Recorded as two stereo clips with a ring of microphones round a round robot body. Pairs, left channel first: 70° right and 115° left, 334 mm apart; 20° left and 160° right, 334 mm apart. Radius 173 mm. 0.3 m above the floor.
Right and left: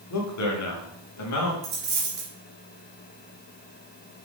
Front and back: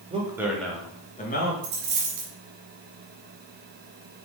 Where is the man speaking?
90° right, 2 m; by 1.5 s 35° right, 2.5 m.